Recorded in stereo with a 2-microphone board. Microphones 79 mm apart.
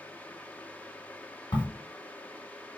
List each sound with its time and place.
1.5 s a crack: 65° left (ahead or behind), 1.3 m